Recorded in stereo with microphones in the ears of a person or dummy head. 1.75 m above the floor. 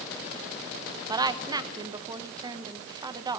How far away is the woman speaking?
About 1.3 m.